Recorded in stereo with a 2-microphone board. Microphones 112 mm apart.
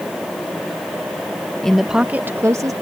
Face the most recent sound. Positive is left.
turn(degrees=-30)  # may be behind; listen again after turning